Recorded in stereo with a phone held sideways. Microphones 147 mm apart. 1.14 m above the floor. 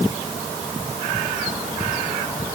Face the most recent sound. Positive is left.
No sound to turn to.